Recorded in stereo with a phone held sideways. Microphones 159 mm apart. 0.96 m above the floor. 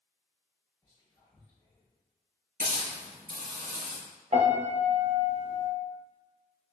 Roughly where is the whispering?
Left.